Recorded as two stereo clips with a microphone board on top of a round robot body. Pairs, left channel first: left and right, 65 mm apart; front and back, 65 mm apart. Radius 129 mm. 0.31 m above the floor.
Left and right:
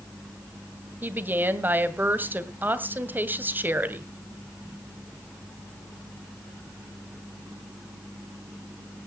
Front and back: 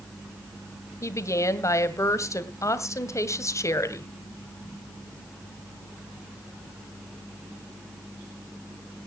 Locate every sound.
1.0 s a woman speaking: 35° right, 2 m